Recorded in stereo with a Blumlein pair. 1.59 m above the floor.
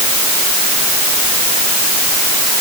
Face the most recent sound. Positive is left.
No sound to turn to.